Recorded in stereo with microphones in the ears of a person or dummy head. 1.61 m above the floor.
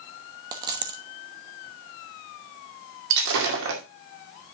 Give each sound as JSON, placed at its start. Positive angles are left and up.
{"t": 0.5, "sound": "a dropped coin", "side_deg": -20, "distance_m": 1.1}
{"t": 3.1, "sound": "breaking glass", "side_deg": -65, "distance_m": 2.0}